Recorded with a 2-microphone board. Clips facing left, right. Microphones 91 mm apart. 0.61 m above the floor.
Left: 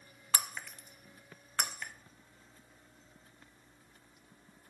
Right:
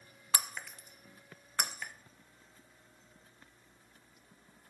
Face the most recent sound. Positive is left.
turn(degrees=-10)  # may be behind; listen again after turning